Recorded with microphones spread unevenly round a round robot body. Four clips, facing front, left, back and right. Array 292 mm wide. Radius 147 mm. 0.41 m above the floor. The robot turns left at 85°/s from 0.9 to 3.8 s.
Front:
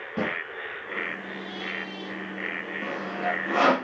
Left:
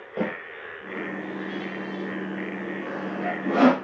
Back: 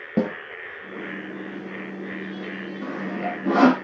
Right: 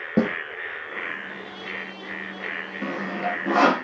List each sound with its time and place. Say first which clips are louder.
0.2 s a snare drum: right 6 dB, back 6 dB; 125° right, 6 m
2.8 s sawing: right 4 dB, back 1 dB; 140° right, 4.5 m; by 3.7 s 140° left, 4.5 m